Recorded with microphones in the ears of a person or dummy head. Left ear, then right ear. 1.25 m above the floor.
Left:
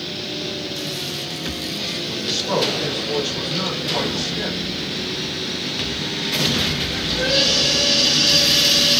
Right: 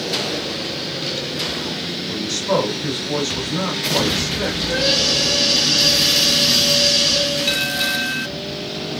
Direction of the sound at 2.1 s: 25° right (ahead or behind).